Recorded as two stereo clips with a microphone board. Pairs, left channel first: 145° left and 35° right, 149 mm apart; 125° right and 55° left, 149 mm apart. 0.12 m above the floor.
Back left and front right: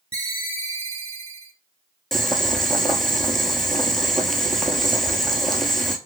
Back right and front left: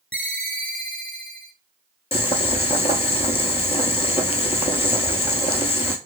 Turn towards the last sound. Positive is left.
turn(degrees=-125)